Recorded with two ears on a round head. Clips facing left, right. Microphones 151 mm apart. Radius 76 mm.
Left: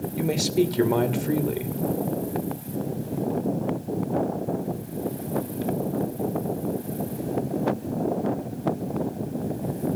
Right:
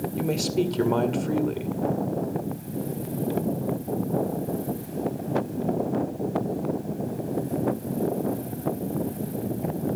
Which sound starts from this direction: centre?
A man speaking, at 0.2 s.